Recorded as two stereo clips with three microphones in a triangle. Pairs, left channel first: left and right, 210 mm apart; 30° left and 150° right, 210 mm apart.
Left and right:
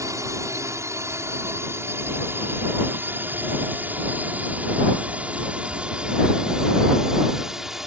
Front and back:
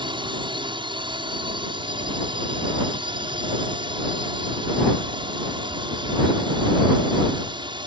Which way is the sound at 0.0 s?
140° right.